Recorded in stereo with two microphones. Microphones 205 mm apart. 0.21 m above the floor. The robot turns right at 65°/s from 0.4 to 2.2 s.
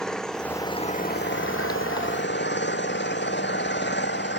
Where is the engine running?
5° left; by 4.4 s 120° left.